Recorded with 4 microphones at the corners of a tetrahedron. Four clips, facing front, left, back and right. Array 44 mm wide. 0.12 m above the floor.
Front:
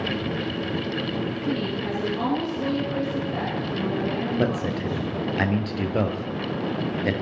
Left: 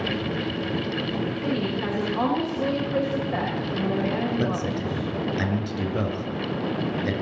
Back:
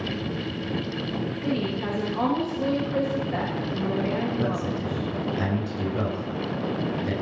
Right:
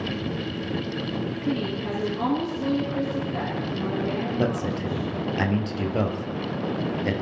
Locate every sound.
1.4 s a woman speaking: 105° left, 6.5 m
4.4 s a man speaking: 10° right, 2.5 m